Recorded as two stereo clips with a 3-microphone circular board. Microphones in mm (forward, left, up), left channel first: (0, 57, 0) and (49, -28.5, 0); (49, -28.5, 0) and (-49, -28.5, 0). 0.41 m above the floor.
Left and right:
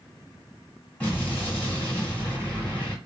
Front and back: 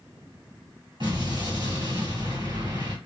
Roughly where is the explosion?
Behind.